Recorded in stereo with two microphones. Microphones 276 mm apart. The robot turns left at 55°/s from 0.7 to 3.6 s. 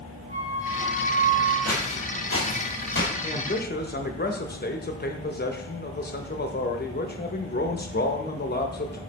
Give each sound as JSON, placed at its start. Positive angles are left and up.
{"t": 0.3, "sound": "a flute", "azimuth_deg": 50, "distance_m": 2.5}
{"t": 1.6, "sound": "footsteps", "side_deg": 65, "distance_m": 1.7}
{"t": 3.2, "sound": "a man speaking", "side_deg": 25, "distance_m": 0.8}